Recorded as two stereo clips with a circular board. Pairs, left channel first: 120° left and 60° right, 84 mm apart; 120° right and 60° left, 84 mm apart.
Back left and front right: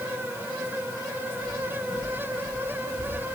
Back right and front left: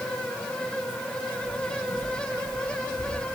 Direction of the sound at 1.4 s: 40° left.